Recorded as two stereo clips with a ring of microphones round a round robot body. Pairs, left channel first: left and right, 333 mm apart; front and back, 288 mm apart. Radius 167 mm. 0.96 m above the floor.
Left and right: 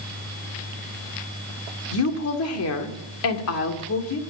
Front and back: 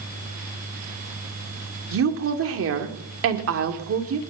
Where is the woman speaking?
140° left, 2.5 m.